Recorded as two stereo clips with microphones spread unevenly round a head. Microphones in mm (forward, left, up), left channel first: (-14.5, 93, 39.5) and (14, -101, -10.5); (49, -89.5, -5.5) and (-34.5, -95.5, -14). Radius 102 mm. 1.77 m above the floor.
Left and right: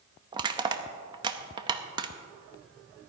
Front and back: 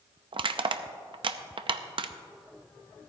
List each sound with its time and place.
0.3 s crushing: 155° right, 0.6 m